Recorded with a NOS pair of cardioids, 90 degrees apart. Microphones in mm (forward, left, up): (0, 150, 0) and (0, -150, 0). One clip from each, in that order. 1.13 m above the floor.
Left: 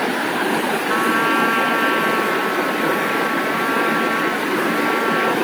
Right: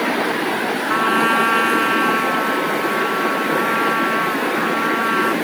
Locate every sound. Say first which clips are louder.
0.9 s a trumpet: right 2 dB; 15° right